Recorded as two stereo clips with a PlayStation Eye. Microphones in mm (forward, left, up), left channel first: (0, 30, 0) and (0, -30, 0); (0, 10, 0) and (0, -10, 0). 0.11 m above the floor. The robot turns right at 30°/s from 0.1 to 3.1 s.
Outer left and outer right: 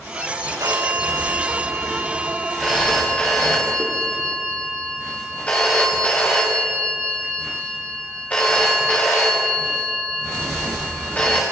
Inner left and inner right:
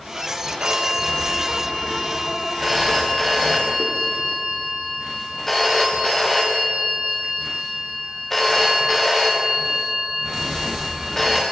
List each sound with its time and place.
0.6 s a phone ringing: 50° right, 6.5 m; by 11.4 s 25° left, 6.5 m